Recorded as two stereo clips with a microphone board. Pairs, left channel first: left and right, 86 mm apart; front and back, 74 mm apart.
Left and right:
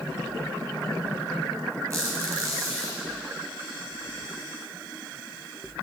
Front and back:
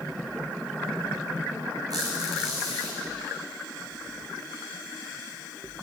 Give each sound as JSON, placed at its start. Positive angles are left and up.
{"t": 1.9, "sound": "a squeak", "azimuth_deg": -150, "distance_m": 4.0}